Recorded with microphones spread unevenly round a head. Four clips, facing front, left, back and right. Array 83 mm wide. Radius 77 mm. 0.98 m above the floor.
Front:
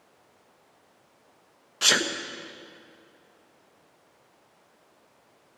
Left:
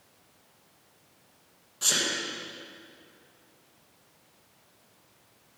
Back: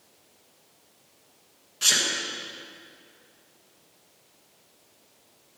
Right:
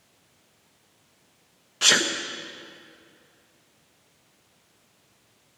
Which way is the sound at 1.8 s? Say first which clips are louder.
Right 9 dB, front 4 dB; 65° right.